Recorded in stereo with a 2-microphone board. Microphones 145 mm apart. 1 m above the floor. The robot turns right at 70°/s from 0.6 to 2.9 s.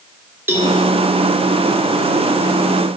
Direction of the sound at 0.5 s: 15° right (ahead or behind).